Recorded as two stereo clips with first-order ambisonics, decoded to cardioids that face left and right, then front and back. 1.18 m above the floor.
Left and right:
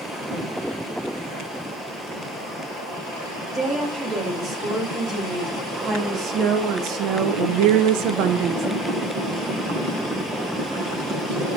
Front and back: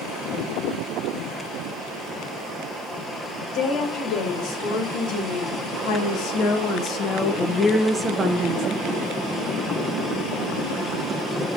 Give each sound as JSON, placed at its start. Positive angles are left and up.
{"t": 3.5, "sound": "a woman speaking", "azimuth_deg": -25, "distance_m": 4.5}